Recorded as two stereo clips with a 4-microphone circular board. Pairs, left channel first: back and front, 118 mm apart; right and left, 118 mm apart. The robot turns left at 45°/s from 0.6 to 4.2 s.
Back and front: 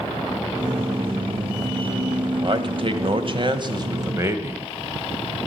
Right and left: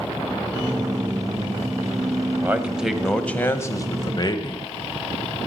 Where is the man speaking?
25° left, 1.2 m; by 4.6 s 55° right, 1.2 m.